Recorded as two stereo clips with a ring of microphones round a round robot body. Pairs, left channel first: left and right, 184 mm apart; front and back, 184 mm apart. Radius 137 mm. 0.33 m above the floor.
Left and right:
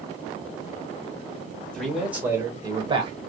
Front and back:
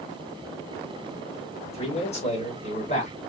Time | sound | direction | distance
1.6 | a man speaking | 10° left | 1.2 m